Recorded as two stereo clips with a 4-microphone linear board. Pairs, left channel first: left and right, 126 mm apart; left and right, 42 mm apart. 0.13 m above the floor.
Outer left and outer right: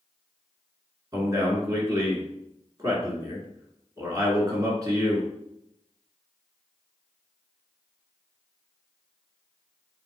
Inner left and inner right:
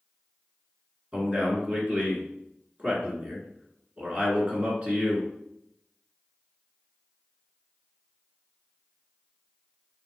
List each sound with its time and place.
1.1 s a man speaking: 30° right (ahead or behind), 1.6 m